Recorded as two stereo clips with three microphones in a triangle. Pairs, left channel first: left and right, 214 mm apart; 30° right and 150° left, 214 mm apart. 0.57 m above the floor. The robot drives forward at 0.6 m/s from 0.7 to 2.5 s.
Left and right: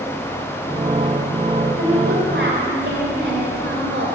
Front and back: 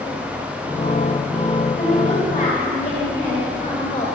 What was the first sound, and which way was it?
A woman speaking, 70° right.